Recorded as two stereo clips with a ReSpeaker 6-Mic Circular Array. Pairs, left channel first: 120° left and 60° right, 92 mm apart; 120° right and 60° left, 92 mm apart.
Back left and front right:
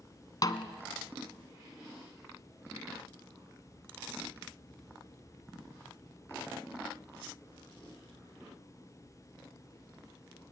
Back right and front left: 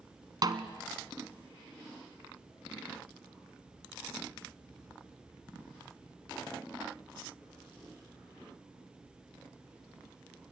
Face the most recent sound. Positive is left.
turn(degrees=90)